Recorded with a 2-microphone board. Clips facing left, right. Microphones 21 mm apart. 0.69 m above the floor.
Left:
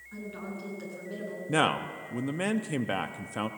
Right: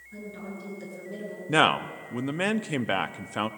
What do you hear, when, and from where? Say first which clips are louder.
0.1 s a woman speaking: even; 70° left (ahead or behind), 8.5 m; by 1.4 s 65° left (ahead or behind), 9 m
1.5 s a man speaking: right 5 dB; 25° right (ahead or behind), 0.5 m